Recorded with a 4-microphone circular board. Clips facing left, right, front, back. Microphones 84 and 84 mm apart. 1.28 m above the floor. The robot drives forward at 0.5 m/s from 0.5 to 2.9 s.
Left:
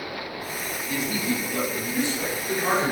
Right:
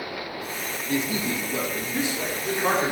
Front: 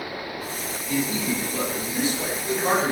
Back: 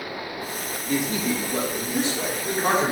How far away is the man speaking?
About 0.9 m.